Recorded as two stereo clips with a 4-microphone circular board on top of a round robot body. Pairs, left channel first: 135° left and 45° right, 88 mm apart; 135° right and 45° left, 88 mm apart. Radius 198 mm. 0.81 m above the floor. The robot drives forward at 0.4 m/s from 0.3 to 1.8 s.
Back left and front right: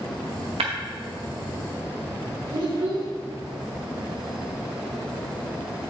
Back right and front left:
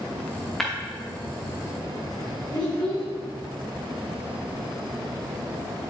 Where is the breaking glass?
45° right, 0.7 m; by 0.7 s 50° right, 0.7 m.